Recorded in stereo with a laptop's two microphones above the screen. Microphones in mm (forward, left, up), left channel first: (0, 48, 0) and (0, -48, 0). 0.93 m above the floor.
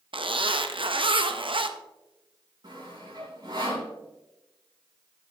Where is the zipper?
65° right (ahead or behind), 0.8 m.